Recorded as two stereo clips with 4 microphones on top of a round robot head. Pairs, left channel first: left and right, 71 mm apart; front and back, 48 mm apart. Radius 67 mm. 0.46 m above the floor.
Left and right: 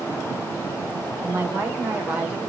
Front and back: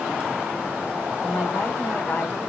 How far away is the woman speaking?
About 2.5 m.